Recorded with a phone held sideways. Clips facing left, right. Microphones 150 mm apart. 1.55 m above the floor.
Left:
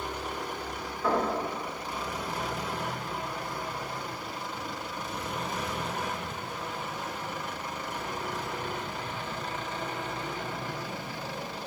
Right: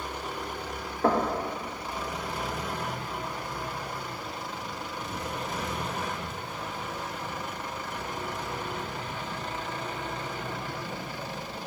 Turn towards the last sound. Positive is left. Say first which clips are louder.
# right 3 dB
turn(degrees=-65)  # may be behind; listen again after turning